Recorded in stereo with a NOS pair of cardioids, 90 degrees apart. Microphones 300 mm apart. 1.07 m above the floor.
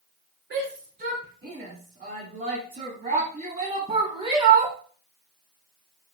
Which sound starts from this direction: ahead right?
A shout, at 0.5 s.